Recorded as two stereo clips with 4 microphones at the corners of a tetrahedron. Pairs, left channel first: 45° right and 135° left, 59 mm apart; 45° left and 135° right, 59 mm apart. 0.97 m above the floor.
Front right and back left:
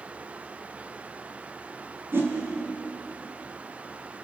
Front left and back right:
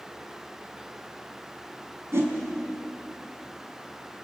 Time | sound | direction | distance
2.1 | a whoosh | 175° right | 4.5 m